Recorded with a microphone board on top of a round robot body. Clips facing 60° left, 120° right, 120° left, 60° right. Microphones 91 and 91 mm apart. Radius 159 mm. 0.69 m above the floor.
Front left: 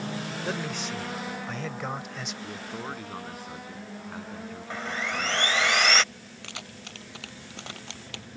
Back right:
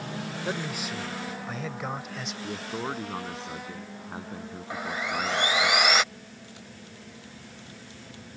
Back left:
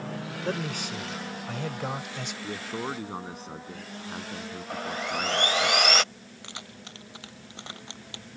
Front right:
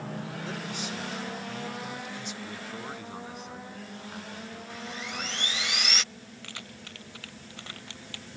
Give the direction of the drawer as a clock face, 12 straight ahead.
I don't hear a drawer.